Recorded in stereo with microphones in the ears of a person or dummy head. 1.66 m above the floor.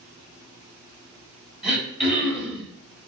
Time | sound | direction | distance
1.6 | throat clearing | centre (ahead or behind) | 2 m